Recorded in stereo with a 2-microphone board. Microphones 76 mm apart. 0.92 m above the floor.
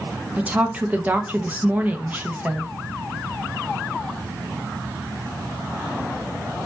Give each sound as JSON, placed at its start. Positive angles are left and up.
{"t": 0.4, "sound": "a woman speaking", "side_deg": -20, "distance_m": 0.7}